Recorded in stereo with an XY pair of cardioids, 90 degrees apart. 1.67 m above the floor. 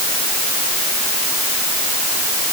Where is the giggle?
No giggle in this recording.